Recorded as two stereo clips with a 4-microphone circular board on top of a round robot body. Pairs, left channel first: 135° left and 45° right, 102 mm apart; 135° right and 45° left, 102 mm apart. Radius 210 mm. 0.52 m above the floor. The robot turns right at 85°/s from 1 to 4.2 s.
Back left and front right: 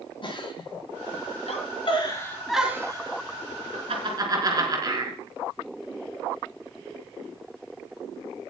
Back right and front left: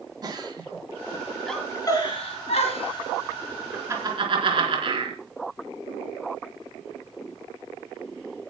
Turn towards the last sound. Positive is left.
turn(degrees=10)